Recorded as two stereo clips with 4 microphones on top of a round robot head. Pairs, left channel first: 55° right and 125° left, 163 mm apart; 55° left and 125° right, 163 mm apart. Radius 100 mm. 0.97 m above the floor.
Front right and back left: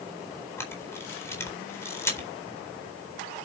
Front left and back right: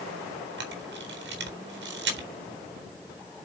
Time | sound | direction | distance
0.6 | a camera shutter | 130° right | 4 m